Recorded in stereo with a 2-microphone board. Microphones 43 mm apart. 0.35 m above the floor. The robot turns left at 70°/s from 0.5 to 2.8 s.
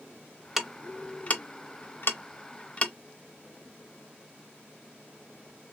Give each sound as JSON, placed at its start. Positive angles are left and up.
{"t": 0.6, "sound": "ticking", "side_deg": -10, "distance_m": 0.7}